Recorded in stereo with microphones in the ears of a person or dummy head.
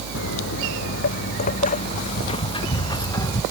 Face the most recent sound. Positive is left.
turn(degrees=20)  # may be behind; listen again after turning